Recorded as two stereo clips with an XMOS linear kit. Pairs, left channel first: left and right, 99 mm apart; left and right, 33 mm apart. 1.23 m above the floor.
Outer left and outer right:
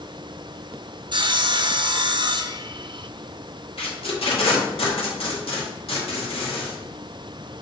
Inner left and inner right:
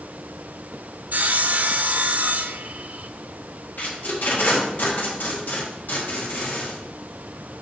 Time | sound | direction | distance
1.1 | sawing | 55° right (ahead or behind) | 0.6 m
3.8 | tape being pulled | 70° left (ahead or behind) | 2 m